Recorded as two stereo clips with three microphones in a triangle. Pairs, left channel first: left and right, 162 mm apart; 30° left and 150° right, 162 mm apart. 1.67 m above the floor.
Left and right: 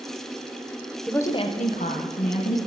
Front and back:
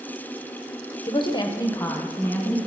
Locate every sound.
1.1 s a woman speaking: 5° left, 0.7 m; by 2.6 s 110° left, 2 m